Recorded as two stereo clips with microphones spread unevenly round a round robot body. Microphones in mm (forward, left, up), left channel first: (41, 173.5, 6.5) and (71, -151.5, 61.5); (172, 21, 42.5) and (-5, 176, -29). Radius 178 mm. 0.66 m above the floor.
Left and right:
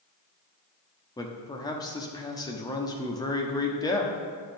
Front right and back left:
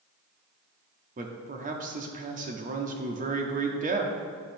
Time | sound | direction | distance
1.2 | a man speaking | 165° left | 0.8 m